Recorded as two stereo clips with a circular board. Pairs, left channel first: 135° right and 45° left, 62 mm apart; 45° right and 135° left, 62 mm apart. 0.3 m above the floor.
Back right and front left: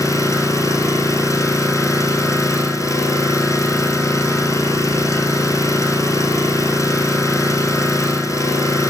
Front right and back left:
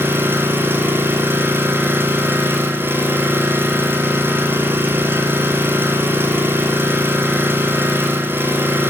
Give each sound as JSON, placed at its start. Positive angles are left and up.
{"t": 0.0, "sound": "an engine running", "azimuth_deg": -170, "distance_m": 2.0}